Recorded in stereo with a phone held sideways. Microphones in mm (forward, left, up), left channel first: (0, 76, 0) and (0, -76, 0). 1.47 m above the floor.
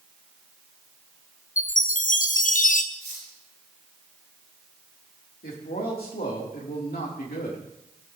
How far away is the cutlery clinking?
About 4 m.